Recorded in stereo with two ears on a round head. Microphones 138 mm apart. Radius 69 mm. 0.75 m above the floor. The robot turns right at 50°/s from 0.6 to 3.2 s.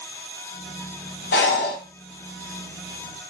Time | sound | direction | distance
1.3 | breathing | 75° left (ahead or behind) | 0.9 m